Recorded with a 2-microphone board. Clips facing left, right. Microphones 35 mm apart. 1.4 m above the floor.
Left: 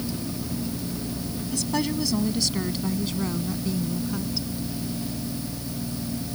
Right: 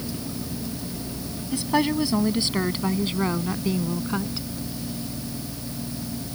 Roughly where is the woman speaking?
Right.